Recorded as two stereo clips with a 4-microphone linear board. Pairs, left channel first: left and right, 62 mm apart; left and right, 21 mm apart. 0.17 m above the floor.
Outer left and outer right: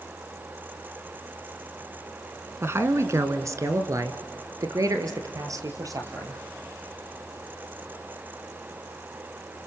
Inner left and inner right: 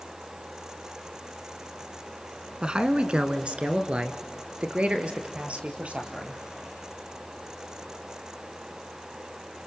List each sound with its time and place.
2.6 s a man speaking: 40° right (ahead or behind), 1.5 m; by 6.4 s 60° right (ahead or behind), 4 m